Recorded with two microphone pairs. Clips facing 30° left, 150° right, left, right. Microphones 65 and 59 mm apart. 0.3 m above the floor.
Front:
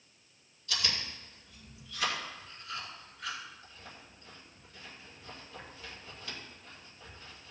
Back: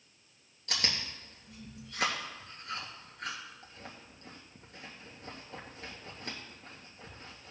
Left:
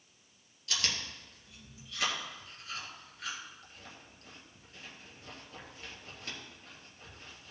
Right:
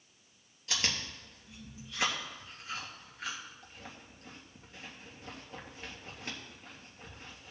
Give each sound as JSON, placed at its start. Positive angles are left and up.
{"t": 0.7, "sound": "chewing", "azimuth_deg": -150, "distance_m": 3.0}